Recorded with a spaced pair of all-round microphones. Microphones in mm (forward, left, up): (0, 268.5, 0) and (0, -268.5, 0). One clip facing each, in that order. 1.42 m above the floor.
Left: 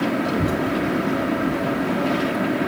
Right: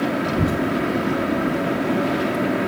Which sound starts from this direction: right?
A child speaking, at 0.2 s.